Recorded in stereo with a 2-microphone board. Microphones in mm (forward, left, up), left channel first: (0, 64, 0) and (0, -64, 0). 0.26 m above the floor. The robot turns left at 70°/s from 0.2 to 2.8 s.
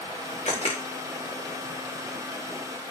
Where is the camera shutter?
65° left (ahead or behind), 5 m; by 0.8 s 40° left (ahead or behind), 5 m.